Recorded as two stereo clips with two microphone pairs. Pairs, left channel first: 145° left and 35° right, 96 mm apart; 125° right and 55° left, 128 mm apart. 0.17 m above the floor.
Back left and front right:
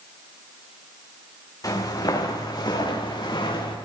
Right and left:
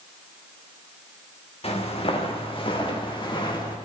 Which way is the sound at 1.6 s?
165° right.